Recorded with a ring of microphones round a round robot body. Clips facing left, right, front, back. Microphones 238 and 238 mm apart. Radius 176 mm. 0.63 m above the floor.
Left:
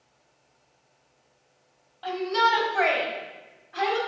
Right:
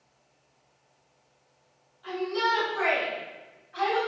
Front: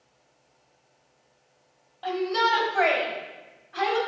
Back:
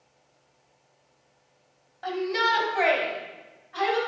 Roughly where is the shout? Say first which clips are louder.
Left 1 dB, front 1 dB; left.